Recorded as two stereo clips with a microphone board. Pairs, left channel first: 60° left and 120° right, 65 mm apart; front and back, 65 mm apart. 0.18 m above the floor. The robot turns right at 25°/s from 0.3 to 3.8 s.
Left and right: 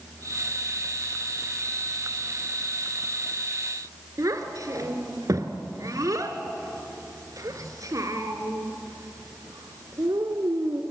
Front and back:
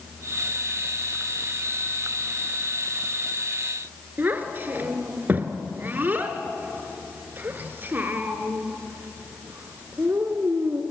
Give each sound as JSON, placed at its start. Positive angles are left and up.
{"t": 4.2, "sound": "a child speaking", "azimuth_deg": -125, "distance_m": 1.8}